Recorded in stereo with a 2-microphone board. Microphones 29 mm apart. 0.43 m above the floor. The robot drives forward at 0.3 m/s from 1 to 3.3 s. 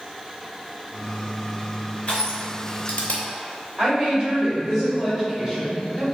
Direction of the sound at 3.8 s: 25° right (ahead or behind).